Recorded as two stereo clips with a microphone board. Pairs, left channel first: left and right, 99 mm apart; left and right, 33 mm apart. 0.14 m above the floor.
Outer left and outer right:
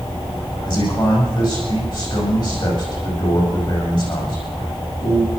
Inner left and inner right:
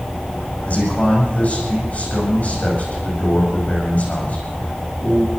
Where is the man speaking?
50° left (ahead or behind), 8 m.